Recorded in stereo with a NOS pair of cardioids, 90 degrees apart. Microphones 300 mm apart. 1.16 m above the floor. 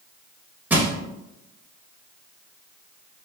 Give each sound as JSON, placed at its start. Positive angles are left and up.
{"t": 0.7, "sound": "crushing", "azimuth_deg": -5, "distance_m": 0.9}